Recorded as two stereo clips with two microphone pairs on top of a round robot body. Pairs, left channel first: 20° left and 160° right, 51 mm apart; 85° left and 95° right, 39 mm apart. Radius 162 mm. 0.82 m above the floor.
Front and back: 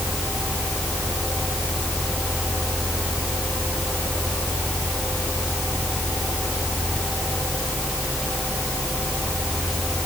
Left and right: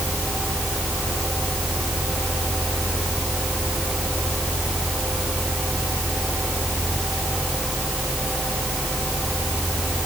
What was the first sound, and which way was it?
Only background noise.